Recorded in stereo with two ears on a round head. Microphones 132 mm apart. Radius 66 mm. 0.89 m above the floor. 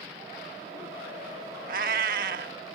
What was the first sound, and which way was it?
A cat meowing, 65° right (ahead or behind).